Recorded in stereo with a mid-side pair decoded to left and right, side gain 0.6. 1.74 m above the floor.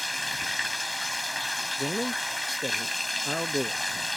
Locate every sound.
0.0 s running water: 5° left
1.8 s a man speaking: straight ahead